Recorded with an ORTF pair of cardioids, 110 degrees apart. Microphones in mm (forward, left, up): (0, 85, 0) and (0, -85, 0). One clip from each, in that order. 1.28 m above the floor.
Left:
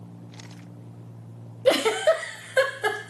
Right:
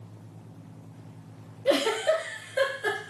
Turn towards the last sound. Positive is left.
turn(degrees=40)